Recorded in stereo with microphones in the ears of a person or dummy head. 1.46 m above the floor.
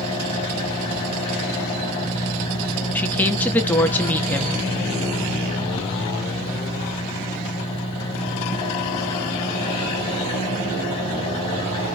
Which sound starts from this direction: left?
An engine running, at 0.0 s.